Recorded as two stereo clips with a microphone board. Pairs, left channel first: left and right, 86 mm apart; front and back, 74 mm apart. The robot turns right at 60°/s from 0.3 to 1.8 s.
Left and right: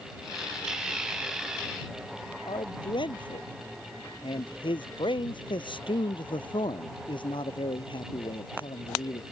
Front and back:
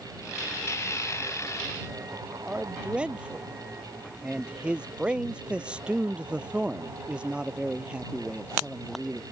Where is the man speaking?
105° left.